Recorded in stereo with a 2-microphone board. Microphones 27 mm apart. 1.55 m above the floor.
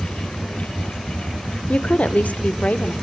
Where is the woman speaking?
50° left (ahead or behind), 0.8 m; by 2.9 s 70° left (ahead or behind), 1.5 m.